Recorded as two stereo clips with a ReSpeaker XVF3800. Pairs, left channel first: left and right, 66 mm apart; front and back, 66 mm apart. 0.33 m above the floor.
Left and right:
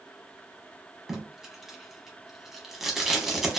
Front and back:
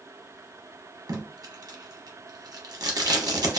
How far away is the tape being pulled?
About 0.7 m.